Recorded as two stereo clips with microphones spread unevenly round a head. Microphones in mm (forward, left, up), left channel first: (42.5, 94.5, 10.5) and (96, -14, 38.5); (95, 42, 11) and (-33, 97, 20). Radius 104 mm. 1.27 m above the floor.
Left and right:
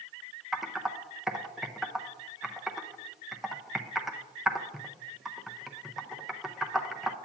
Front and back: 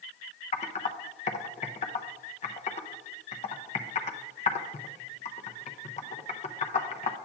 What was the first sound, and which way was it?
Typing on a keyboard, 15° left.